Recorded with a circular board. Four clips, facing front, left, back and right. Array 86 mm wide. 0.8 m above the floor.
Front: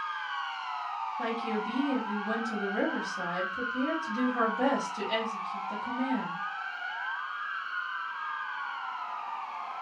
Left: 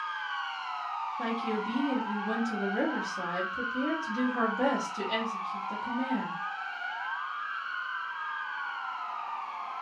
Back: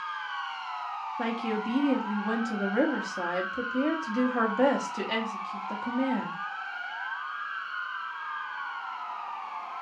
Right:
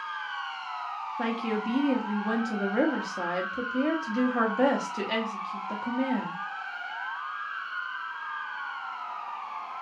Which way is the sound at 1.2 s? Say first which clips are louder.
Right 4 dB, back 3 dB; 130° right.